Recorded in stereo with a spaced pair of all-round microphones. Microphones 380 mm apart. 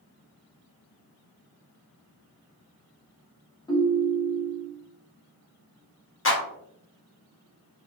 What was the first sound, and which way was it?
A ringtone, 10° left (ahead or behind).